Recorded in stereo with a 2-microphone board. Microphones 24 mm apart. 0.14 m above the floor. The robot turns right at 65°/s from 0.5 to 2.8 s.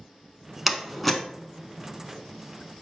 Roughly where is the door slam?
Centre.